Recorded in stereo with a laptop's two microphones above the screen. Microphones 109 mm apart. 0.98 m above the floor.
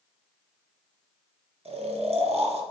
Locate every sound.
1.6 s snoring: 65° right (ahead or behind), 0.9 m